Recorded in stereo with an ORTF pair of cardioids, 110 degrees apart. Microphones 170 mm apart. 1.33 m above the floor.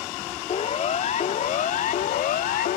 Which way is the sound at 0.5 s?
40° left.